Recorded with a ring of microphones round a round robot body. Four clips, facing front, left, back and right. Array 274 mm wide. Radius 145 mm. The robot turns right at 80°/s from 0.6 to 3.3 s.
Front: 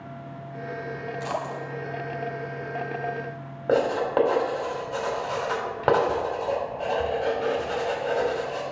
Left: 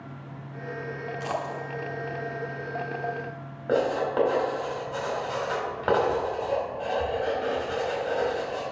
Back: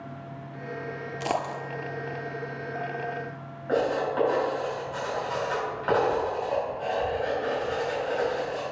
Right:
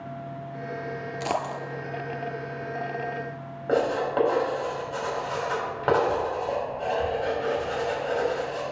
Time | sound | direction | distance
1.2 | a dropped coin | 145° right | 0.7 m
3.7 | writing | 5° left | 3 m